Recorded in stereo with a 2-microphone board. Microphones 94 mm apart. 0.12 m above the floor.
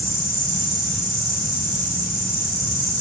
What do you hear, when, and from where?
0.0 s an insect: 55° right (ahead or behind), 5 m